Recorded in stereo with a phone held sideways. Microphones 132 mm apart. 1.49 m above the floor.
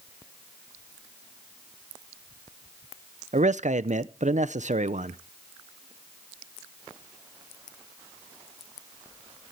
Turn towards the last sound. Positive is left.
turn(degrees=-65)  # may be behind; listen again after turning